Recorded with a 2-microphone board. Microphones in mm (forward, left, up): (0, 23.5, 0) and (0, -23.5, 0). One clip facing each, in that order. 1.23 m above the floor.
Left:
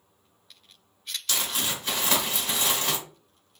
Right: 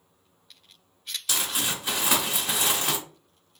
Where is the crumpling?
10° right (ahead or behind), 1.3 m.